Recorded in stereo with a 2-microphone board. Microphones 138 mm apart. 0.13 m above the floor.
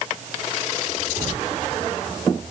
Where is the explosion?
No explosion in this recording.